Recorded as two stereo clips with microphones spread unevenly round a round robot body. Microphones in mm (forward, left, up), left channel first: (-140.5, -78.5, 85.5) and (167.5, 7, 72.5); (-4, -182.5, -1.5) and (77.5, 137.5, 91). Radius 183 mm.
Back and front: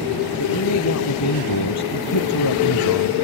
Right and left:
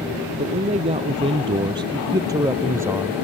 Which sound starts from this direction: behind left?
A man speaking, at 0.4 s.